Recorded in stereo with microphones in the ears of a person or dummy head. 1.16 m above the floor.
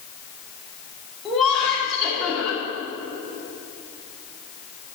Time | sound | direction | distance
1.2 | laughter | centre (ahead or behind) | 2.5 m